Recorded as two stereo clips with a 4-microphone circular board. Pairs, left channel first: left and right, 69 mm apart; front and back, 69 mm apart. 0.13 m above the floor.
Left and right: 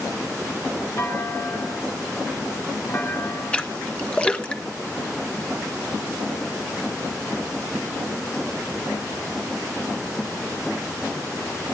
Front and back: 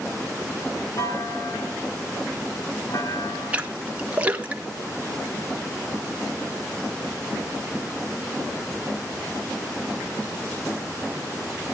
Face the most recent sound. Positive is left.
turn(degrees=140)